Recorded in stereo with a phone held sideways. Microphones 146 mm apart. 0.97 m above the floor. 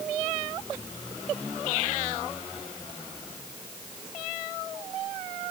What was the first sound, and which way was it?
Only background noise.